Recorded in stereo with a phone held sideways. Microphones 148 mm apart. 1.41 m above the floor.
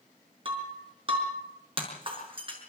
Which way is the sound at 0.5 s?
35° right (ahead or behind).